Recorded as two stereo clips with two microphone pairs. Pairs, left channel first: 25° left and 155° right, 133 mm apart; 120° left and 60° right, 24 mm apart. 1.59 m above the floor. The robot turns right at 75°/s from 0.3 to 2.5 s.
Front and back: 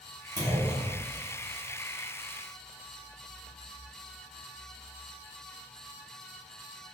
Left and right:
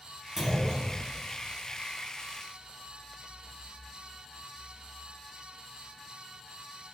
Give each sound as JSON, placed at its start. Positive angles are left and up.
{"t": 0.4, "sound": "a clunk", "azimuth_deg": -115, "distance_m": 1.4}